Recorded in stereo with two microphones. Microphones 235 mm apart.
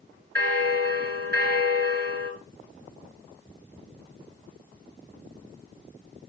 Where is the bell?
45° right (ahead or behind), 3 m.